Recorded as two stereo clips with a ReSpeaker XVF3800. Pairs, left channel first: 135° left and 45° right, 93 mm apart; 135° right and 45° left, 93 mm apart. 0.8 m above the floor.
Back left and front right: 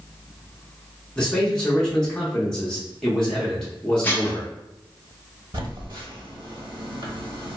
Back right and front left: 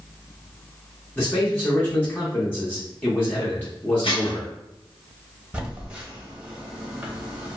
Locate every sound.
1.2 s a man speaking: 160° right, 0.8 m
4.0 s dishes clattering: 155° right, 0.7 m
5.5 s a phone buzzing: 30° right, 0.9 m